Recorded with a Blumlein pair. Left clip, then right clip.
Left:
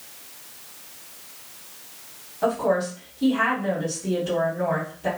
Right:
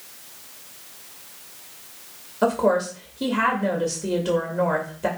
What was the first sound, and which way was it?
A woman speaking, 40° right.